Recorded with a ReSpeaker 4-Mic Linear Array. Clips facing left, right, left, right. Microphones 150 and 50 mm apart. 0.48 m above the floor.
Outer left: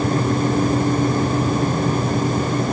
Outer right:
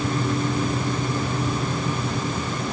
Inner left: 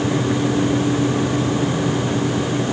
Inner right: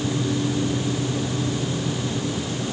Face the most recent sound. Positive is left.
No sound to turn to.